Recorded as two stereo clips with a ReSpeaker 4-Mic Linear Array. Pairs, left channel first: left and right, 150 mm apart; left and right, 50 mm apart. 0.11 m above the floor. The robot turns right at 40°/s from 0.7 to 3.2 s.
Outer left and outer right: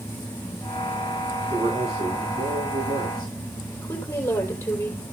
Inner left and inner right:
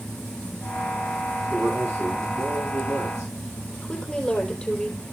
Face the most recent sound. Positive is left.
turn(degrees=15)  # may be behind; listen again after turning